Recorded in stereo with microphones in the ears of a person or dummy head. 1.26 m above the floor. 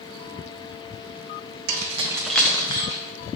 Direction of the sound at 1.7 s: 55° right (ahead or behind).